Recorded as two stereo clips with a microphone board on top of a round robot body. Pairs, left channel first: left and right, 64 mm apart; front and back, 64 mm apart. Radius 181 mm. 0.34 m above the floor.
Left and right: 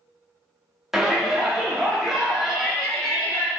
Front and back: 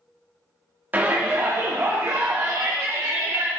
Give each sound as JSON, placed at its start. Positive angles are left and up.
{"t": 0.9, "sound": "a shout", "azimuth_deg": -165, "distance_m": 1.6}